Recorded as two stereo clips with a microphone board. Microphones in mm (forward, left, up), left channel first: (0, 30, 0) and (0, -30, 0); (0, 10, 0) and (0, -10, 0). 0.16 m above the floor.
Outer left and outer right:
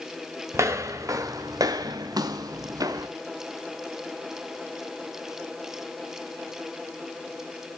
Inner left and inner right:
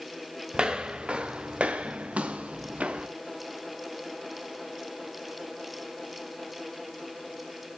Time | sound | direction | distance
0.5 | footsteps | 50° right (ahead or behind) | 1.6 m